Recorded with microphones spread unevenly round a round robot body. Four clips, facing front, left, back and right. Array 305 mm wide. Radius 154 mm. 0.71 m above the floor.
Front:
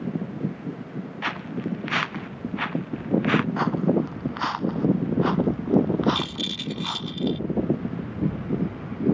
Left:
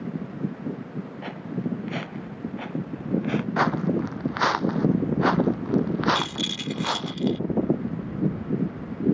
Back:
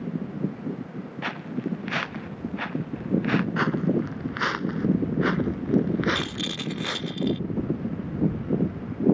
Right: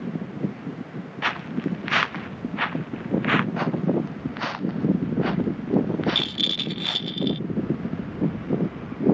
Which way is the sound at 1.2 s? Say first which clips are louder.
Right 5 dB, front 1 dB; 70° right.